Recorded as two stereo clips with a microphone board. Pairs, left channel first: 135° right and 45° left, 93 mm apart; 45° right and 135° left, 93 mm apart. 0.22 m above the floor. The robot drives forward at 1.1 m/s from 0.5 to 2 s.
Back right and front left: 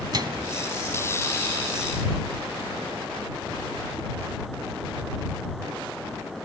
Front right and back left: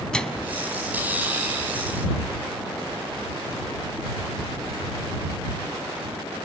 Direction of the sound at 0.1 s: 35° left.